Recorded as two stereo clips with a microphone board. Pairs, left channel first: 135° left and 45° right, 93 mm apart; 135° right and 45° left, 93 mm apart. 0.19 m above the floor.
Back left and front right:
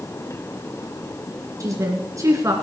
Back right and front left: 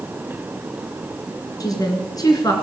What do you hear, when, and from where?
1.6 s a woman speaking: 95° right, 2.5 m